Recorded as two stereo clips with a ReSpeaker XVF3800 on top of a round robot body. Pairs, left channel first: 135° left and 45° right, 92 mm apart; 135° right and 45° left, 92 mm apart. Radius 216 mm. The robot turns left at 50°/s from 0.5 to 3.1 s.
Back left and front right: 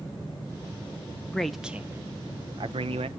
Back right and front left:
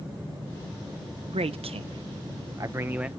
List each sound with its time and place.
1.3 s a man speaking: 55° left, 1.0 m; by 3.1 s 35° right, 1.0 m